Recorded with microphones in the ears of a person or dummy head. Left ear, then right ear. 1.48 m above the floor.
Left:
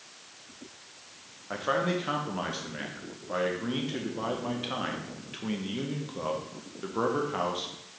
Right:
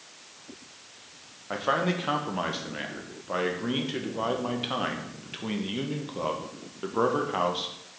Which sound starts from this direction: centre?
A man speaking, at 1.5 s.